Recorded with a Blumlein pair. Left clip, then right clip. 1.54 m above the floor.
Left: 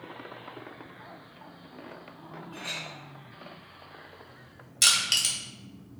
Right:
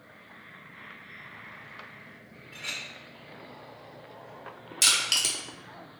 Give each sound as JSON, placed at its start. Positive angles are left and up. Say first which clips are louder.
{"t": 2.5, "sound": "a clink", "louder": "right 1 dB", "azimuth_deg": -25, "distance_m": 1.1}
{"t": 4.8, "sound": "crushing", "louder": "left 1 dB", "azimuth_deg": 0, "distance_m": 1.3}